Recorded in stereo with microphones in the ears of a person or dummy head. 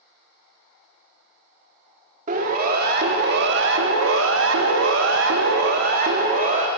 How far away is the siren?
About 3 m.